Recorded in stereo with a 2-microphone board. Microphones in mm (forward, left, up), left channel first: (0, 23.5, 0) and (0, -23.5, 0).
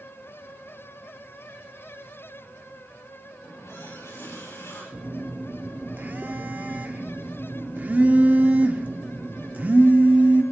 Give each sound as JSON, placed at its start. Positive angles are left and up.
{"t": 3.4, "sound": "a running tap", "side_deg": 80, "distance_m": 9.5}
{"t": 4.9, "sound": "a phone buzzing", "side_deg": -40, "distance_m": 1.3}